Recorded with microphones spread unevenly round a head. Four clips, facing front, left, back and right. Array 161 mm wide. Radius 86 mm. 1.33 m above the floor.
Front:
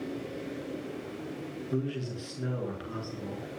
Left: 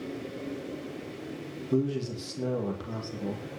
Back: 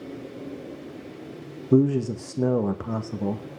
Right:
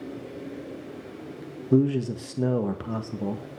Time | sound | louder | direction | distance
1.7 | a man speaking | right 6 dB, back 14 dB | 150° right | 2 m